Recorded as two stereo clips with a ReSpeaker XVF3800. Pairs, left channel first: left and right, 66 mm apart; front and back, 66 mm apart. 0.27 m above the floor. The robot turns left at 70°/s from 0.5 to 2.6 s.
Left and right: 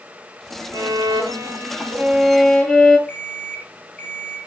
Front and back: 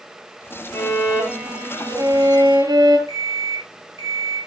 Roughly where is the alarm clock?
Behind.